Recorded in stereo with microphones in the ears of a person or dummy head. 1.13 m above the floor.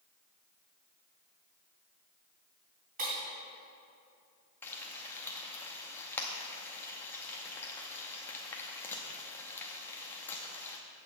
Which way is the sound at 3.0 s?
40° right (ahead or behind).